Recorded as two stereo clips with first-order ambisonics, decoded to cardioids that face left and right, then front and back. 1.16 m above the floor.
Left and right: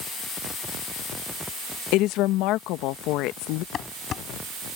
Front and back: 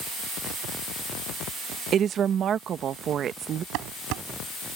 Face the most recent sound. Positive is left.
turn(degrees=150)